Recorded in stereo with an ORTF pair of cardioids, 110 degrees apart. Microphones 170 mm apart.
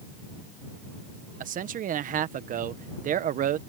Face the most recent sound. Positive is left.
turn(degrees=-50)